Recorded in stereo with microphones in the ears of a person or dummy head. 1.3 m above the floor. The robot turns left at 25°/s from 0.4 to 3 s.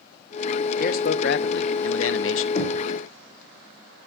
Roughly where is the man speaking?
Behind left.